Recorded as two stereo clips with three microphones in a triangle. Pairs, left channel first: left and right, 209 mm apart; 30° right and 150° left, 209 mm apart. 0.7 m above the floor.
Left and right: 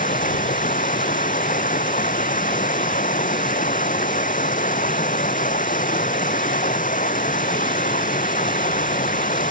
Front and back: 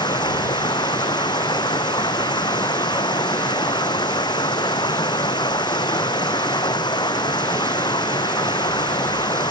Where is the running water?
40° left.